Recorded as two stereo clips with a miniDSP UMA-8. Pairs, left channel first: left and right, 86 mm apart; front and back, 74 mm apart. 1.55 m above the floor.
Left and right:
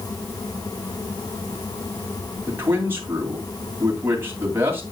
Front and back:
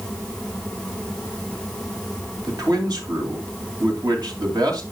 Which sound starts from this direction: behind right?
A man speaking, at 2.5 s.